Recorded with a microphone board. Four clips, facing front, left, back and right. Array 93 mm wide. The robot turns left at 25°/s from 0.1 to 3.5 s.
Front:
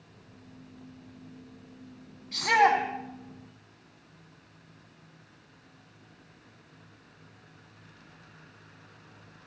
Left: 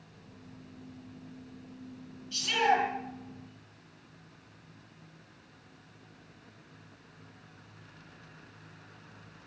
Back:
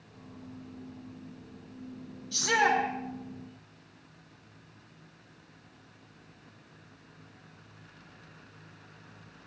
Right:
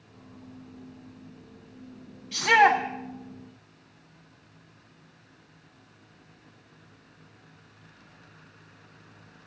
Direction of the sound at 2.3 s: 55° right.